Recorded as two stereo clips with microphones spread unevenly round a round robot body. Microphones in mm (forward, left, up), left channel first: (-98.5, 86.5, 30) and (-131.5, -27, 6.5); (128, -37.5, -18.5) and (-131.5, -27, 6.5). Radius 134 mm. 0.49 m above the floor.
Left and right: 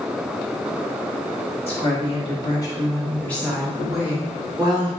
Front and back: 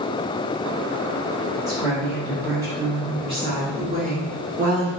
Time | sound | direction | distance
1.7 | a woman speaking | 80° left | 1.4 m